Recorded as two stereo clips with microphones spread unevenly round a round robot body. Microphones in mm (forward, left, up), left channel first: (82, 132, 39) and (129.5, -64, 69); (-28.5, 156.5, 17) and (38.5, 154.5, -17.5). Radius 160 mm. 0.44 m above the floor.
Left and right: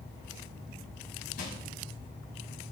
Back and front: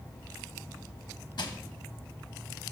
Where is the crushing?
165° left, 1.3 m.